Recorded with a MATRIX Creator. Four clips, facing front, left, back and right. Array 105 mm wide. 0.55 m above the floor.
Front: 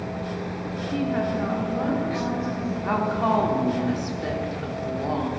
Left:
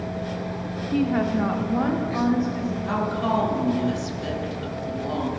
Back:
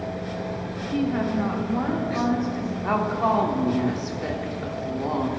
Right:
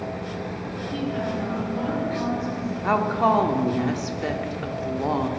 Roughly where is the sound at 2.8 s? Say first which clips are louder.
Right 6 dB, back 1 dB; right.